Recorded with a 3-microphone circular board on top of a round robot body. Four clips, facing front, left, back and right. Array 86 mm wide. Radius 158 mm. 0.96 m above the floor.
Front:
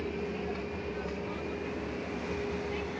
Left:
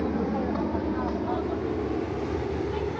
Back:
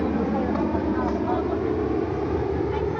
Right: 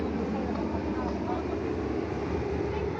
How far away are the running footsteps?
No running footsteps in this recording.